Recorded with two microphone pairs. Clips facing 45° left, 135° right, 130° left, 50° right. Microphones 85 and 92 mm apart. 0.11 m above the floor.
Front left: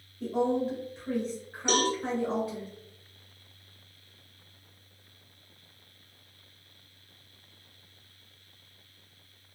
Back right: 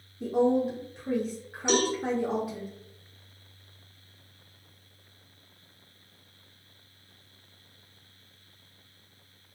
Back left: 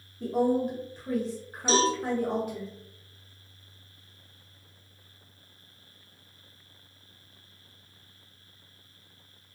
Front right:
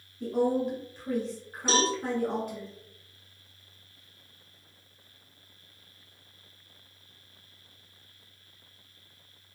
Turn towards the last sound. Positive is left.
turn(degrees=-50)